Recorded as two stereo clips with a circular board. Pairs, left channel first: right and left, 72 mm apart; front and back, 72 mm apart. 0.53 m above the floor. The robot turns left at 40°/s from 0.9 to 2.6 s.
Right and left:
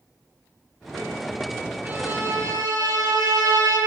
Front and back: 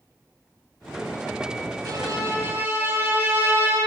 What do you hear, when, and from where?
1.9 s a violin: 150° left, 7 m; by 3.8 s 120° left, 7 m